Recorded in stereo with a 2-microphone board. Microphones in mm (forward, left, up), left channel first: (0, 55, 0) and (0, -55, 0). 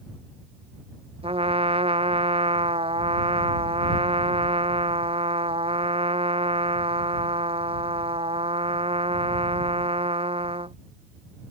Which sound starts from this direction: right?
A trumpet, at 1.2 s.